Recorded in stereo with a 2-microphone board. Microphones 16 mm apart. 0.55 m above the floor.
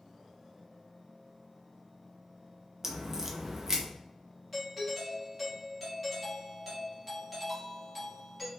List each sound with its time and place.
2.8 s a crack: 30° right (ahead or behind), 0.6 m
4.5 s a doorbell: 5° right (ahead or behind), 1.4 m